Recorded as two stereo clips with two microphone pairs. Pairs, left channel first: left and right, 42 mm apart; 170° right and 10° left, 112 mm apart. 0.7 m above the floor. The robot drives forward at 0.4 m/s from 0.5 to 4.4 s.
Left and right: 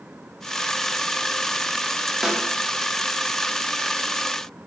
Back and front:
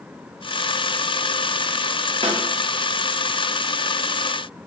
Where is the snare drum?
15° right, 0.5 m; by 2.4 s 20° right, 0.5 m.